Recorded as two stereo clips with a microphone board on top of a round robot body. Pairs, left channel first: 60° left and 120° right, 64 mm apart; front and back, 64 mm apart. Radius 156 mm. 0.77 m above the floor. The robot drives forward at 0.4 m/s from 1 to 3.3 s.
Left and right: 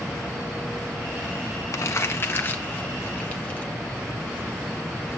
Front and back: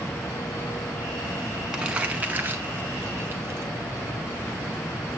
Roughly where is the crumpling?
Left.